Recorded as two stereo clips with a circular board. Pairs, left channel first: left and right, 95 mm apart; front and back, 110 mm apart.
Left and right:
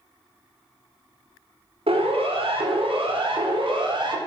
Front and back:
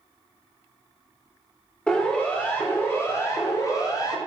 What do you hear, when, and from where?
1.9 s a siren: 80° right, 4.5 m; by 4.2 s 55° right, 4 m